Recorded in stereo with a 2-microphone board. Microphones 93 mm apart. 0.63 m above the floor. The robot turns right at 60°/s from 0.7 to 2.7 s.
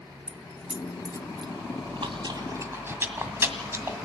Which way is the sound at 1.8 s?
80° right.